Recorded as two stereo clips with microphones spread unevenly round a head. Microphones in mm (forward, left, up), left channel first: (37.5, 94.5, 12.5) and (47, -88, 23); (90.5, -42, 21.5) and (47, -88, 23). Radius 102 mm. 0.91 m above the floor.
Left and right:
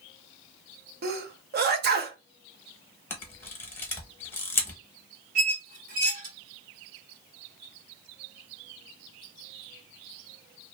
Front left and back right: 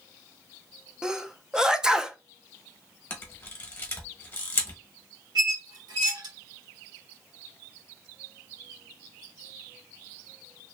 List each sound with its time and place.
1.0 s a sneeze: 55° right, 0.6 m
3.1 s a camera shutter: 20° left, 0.8 m
5.3 s a squeak: 140° right, 1.1 m